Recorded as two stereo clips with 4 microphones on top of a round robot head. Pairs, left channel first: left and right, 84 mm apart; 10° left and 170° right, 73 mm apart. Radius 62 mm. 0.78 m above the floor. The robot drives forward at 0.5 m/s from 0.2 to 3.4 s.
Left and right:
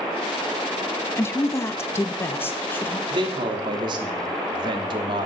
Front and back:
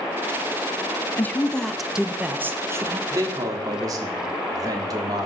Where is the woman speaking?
55° left, 0.7 m; by 3.0 s 155° left, 1.0 m.